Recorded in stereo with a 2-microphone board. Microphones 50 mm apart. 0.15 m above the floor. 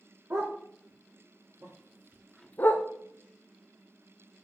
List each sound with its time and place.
0.3 s a dog barking: 80° right, 3.5 m; by 2.9 s 55° left (ahead or behind), 1.0 m